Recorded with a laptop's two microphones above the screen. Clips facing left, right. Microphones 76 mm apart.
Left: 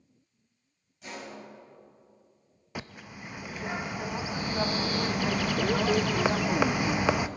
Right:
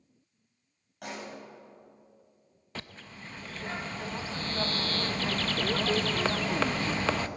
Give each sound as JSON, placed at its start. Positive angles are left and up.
{"t": 1.0, "sound": "a pop", "side_deg": -60, "distance_m": 4.5}
{"t": 2.8, "sound": "a bird", "side_deg": 10, "distance_m": 0.5}